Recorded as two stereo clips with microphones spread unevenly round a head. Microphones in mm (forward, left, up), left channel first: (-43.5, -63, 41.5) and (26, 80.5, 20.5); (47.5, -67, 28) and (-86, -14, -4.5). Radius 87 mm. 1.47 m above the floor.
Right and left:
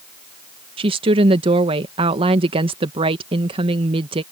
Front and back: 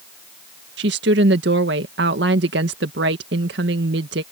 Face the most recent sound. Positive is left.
turn(degrees=125)